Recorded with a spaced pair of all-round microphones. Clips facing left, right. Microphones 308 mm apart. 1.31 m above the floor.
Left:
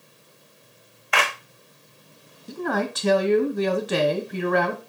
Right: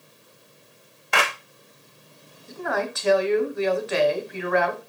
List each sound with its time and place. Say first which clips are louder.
1.1 s a clap: right 1 dB; 50° right (ahead or behind), 1.3 m
2.5 s a man speaking: left 2 dB; 45° left (ahead or behind), 0.8 m